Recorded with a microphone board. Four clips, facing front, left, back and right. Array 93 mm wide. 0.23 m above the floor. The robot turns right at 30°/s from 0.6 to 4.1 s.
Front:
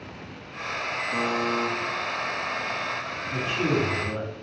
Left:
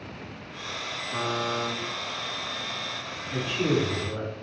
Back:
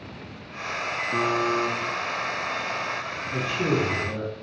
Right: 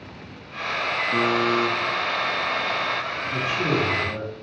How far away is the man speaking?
About 1.3 m.